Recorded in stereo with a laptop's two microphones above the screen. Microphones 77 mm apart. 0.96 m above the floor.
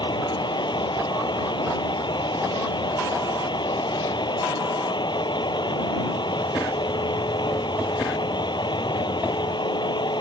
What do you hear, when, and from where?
0.0 s a fan: 85° left